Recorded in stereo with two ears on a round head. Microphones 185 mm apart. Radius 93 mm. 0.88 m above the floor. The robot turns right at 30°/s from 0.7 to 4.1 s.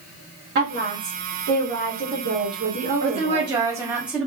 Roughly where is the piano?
No piano in this recording.